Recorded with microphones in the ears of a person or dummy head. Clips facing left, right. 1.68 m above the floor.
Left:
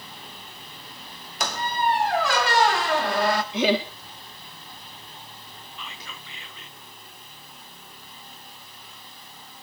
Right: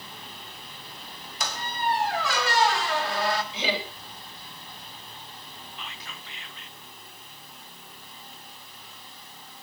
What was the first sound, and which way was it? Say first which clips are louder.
A squeak: left 5 dB; 50° left (ahead or behind).